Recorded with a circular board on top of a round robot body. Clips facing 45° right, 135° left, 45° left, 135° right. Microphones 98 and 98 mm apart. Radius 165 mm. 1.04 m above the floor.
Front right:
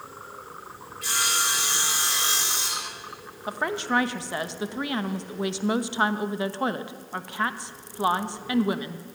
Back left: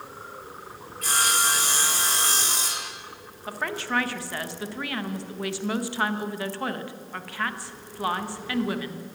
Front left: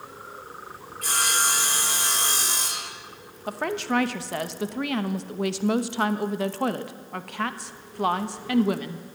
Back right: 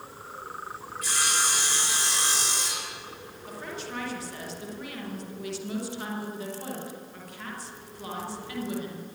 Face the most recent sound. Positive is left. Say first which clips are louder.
# front right 3 dB, front left 11 dB
turn(degrees=25)